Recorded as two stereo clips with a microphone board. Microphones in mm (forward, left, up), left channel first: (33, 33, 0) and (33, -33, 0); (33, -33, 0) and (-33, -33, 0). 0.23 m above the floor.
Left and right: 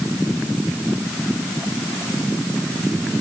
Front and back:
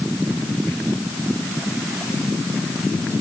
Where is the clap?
No clap in this recording.